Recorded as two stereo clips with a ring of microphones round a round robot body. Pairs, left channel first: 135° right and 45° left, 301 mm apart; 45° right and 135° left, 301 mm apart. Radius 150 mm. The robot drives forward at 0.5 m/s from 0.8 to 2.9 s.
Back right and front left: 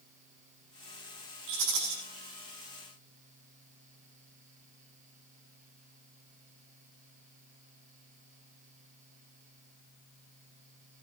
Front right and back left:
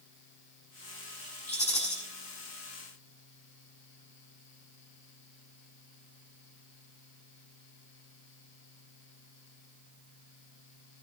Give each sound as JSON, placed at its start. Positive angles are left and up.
{"t": 1.5, "sound": "a rattle", "azimuth_deg": 25, "distance_m": 5.5}